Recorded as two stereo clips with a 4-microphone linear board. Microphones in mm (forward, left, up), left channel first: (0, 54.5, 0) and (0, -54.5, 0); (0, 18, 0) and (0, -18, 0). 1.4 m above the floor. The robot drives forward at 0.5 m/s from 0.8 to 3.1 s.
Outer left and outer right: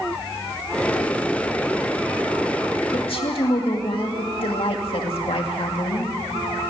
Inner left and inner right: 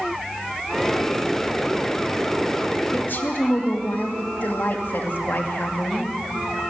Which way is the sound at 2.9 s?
60° left (ahead or behind).